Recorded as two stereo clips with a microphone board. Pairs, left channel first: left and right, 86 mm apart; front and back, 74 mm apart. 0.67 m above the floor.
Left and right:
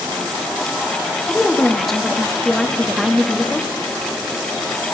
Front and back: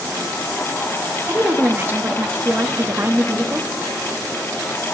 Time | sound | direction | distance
1.3 | a woman speaking | 175° left | 0.9 m